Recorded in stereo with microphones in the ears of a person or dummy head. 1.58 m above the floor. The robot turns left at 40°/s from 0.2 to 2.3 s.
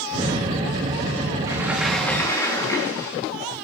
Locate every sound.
1.5 s a sliding door: 165° right, 3 m; by 3.1 s 165° left, 3 m